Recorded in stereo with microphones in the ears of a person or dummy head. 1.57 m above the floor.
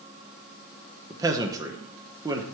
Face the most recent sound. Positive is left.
turn(degrees=-15)  # may be behind; listen again after turning